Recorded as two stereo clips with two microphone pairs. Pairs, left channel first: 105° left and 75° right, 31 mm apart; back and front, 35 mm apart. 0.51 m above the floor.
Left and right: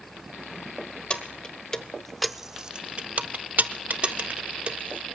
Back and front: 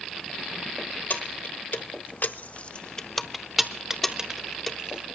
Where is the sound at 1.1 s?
160° left, 1.0 m; by 5.0 s 55° right, 1.4 m.